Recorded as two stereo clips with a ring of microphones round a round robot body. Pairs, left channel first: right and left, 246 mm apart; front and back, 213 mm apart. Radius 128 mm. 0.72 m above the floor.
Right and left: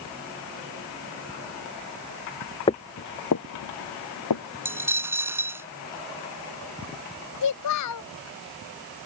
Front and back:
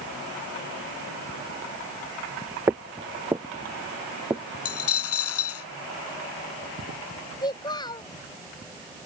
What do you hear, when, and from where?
2.7 s footsteps: 115° right; by 4.4 s 95° right
4.7 s a dropped coin: 10° left
7.4 s a child speaking: 75° right